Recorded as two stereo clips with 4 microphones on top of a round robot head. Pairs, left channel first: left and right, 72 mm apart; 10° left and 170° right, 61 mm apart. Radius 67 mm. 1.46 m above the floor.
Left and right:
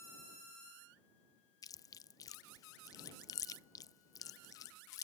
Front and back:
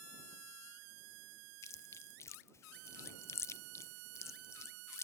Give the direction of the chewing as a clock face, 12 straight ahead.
10 o'clock.